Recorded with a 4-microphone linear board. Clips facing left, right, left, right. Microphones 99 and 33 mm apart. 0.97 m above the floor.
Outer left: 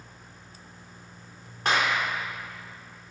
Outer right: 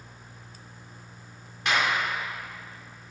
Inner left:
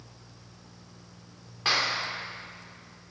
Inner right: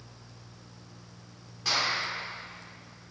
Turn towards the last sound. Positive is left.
turn(degrees=40)  # may be behind; listen again after turning